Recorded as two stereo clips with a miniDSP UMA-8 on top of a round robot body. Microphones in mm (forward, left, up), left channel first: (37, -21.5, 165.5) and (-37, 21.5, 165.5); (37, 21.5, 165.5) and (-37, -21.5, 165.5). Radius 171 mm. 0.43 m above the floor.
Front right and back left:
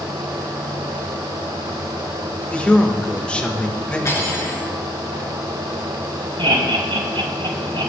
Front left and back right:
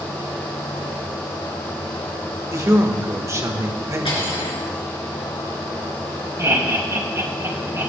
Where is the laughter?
155° left, 4 m.